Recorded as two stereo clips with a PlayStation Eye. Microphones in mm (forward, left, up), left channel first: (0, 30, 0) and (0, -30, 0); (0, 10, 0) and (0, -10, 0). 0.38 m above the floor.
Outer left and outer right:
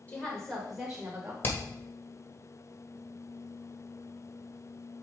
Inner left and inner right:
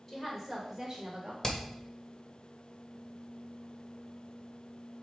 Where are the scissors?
I don't hear scissors.